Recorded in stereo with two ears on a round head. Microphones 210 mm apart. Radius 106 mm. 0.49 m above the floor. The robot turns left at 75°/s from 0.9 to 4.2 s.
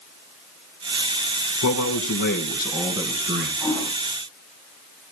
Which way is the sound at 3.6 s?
15° right (ahead or behind).